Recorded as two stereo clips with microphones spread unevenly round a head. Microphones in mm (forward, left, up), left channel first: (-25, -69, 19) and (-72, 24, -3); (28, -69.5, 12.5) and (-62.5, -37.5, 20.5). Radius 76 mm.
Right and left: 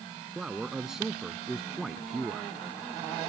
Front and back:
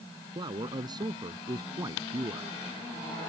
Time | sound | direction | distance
0.3 | a man speaking | 160° right | ?